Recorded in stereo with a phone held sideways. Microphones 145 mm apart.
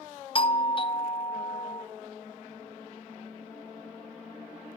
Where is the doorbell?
35° left (ahead or behind), 0.5 m.